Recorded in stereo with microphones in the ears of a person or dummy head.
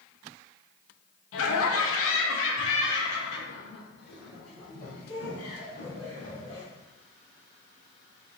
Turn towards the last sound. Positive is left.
turn(degrees=50)  # may be behind; listen again after turning